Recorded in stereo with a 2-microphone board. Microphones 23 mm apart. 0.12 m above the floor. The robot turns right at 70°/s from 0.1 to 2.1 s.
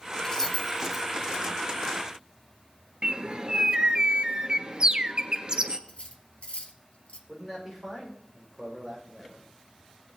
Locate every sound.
0.2 s keys jangling: 35° left (ahead or behind), 1.9 m; by 1.4 s 40° right (ahead or behind), 1.9 m
3.0 s a bird: 40° right (ahead or behind), 0.7 m
5.9 s cutlery clinking: 60° left (ahead or behind), 1.5 m
7.3 s a man speaking: 5° right (ahead or behind), 6.5 m